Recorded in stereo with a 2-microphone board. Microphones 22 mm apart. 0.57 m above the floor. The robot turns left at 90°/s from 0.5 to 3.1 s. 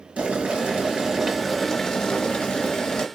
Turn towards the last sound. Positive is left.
turn(degrees=45)